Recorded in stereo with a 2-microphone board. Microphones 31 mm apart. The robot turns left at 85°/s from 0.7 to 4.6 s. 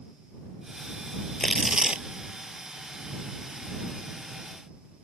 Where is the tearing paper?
15° left; by 2.0 s 40° right.